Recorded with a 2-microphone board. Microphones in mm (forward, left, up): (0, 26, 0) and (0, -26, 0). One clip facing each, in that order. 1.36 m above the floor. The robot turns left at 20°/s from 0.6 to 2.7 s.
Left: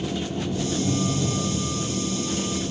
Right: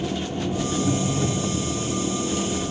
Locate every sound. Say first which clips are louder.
0.0 s an engine running: right 1 dB; 30° right, 3 m; by 2.7 s 75° right, 3 m